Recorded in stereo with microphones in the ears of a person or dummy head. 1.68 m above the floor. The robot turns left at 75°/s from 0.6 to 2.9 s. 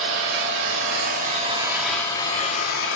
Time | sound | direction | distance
0.0 | an engine running | 85° right | 2.5 m